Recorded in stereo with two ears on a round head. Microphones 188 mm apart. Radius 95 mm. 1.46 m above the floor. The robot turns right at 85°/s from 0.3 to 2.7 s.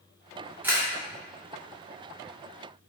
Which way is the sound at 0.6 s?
10° right (ahead or behind).